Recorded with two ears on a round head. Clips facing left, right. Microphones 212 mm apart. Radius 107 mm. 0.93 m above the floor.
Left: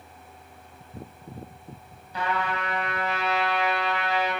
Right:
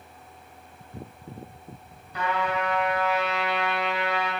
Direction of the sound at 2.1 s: 65° left (ahead or behind).